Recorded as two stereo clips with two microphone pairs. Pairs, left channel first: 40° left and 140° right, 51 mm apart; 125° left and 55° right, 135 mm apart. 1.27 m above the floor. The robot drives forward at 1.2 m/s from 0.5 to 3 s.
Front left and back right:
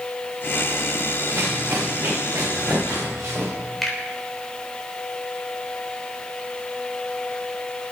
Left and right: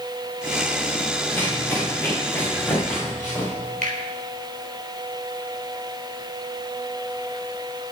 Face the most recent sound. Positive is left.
turn(degrees=-50)